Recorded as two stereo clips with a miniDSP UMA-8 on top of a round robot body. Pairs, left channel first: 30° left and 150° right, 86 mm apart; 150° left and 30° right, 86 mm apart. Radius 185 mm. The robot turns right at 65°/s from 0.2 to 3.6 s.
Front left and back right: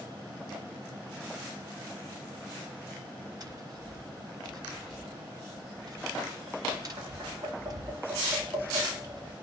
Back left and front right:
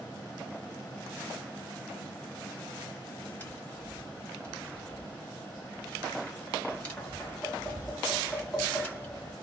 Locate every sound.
3.4 s tapping: 155° right, 1.8 m; by 9.3 s 145° right, 1.8 m